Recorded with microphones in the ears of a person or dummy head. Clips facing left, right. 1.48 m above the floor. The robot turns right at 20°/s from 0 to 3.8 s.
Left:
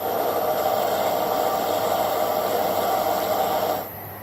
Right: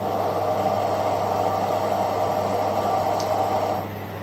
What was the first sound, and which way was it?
Only background noise.